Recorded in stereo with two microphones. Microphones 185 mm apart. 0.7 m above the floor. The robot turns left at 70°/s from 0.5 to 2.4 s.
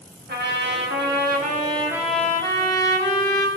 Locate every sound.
0.3 s a trumpet: 70° right, 2.5 m; by 3.5 s 160° left, 2.5 m